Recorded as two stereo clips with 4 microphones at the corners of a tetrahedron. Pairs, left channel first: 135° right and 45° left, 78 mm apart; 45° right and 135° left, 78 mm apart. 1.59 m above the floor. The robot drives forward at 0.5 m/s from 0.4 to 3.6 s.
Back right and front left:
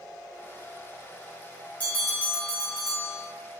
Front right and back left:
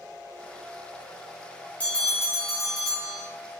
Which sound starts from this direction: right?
A bell, at 1.8 s.